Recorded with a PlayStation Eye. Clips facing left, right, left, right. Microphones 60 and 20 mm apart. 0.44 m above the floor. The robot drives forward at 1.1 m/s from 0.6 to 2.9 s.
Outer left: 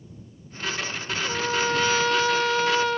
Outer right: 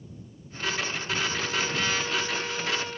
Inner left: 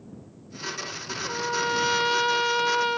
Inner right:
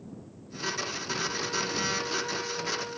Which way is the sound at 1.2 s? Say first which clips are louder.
Outer left 4 dB, inner left 8 dB; 60° left (ahead or behind).